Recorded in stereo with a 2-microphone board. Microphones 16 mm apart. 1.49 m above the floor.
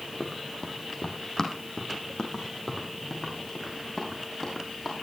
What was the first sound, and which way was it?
Running footsteps, 45° left (ahead or behind).